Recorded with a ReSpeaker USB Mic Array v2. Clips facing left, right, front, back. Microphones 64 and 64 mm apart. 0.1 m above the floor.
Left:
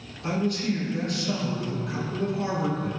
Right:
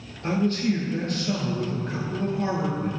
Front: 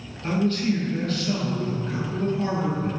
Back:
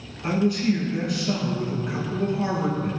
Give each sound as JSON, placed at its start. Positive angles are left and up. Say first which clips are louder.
{"t": 0.2, "sound": "a man speaking", "louder": "right 3 dB, back 1 dB", "azimuth_deg": -110, "distance_m": 1.9}